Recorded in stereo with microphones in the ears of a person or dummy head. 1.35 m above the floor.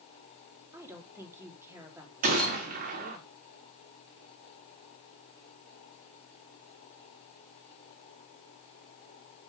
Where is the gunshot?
50° right (ahead or behind), 1.5 m.